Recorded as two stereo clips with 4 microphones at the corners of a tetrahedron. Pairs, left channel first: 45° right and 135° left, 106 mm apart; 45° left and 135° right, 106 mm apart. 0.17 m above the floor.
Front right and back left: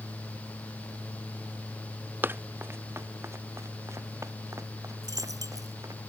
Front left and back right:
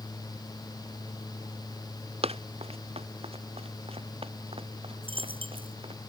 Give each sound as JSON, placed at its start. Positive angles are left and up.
{"t": 2.2, "sound": "running footsteps", "azimuth_deg": -155}
{"t": 5.0, "sound": "a dropped coin", "azimuth_deg": -170}